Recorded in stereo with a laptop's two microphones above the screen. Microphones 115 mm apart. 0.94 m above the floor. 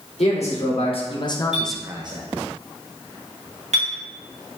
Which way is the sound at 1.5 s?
75° right (ahead or behind).